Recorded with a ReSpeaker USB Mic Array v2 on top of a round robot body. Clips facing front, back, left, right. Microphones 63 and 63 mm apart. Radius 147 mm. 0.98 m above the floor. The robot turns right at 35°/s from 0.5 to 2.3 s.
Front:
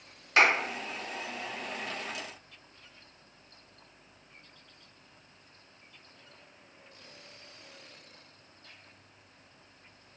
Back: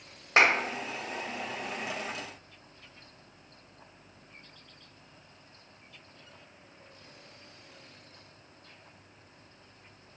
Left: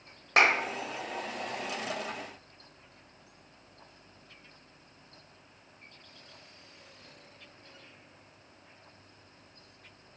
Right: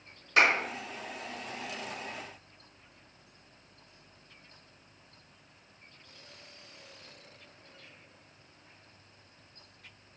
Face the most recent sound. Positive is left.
turn(degrees=-175)